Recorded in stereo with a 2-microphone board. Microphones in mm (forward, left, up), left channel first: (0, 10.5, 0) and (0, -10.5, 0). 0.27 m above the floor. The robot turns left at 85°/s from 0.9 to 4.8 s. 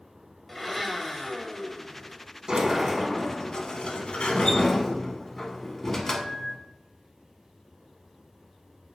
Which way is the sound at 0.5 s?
5° left (ahead or behind).